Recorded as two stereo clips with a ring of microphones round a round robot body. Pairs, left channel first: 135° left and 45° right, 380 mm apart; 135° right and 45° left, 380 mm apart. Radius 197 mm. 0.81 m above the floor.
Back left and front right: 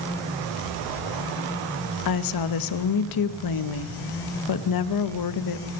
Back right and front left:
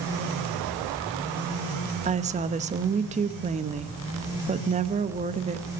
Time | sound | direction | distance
2.0 | a woman speaking | 115° left | 1.0 m